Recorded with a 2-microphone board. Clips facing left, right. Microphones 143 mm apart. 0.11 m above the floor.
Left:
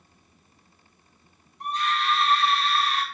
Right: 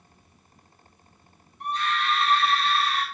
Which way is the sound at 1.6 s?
40° left (ahead or behind).